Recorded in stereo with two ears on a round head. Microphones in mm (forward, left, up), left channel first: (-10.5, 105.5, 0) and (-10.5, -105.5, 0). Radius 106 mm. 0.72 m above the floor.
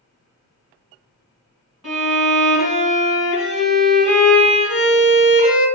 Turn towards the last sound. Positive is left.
turn(degrees=-5)  # may be behind; listen again after turning